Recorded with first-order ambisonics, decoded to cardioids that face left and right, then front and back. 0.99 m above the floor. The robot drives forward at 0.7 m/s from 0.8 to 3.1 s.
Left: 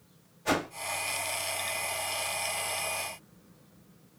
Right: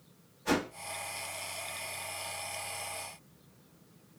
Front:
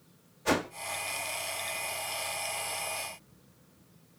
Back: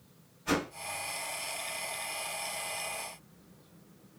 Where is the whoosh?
20° left, 1.9 m.